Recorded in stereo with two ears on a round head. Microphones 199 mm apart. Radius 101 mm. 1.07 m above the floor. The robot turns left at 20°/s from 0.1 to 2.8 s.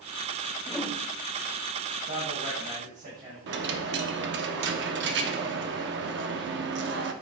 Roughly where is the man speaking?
Right.